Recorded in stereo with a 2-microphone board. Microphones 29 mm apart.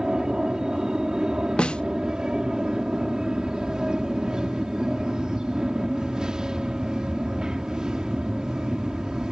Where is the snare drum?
35° left (ahead or behind).